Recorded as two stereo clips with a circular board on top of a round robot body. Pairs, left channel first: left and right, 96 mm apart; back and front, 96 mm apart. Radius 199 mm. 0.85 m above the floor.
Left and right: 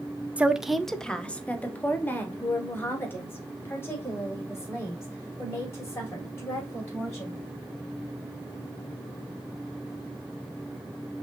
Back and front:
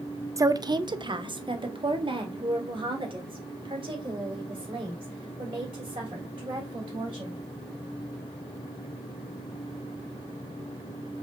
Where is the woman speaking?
25° right, 0.6 m; by 7.4 s 30° left, 3.5 m.